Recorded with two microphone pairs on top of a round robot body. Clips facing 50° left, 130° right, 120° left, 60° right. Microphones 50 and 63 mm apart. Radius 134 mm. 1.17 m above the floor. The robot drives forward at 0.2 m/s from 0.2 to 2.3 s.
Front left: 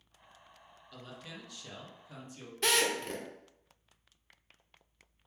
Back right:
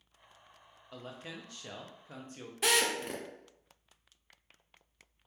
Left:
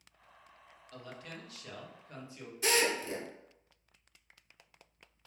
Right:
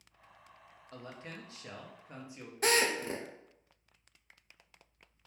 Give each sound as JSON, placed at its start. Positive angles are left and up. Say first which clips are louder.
{"t": 0.9, "sound": "a man speaking", "louder": "back right 3 dB, right 1 dB", "azimuth_deg": -105, "distance_m": 0.7}
{"t": 2.6, "sound": "a drill", "louder": "even, right 1 dB", "azimuth_deg": -60, "distance_m": 0.7}